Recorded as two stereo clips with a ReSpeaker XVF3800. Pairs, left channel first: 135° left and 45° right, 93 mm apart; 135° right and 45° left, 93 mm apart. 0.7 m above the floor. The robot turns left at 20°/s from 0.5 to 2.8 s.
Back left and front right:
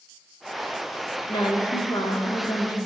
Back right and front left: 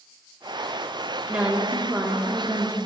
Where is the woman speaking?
125° left, 1.3 m; by 2.8 s 95° left, 1.3 m.